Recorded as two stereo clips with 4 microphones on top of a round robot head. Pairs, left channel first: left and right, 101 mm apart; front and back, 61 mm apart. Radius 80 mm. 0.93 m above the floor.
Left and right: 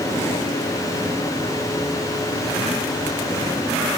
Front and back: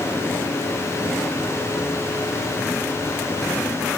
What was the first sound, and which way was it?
Only background noise.